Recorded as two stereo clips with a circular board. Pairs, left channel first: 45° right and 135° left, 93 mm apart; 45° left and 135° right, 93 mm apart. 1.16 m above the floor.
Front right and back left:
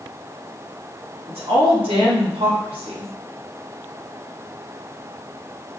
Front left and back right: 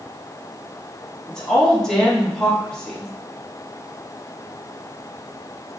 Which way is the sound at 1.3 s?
130° left.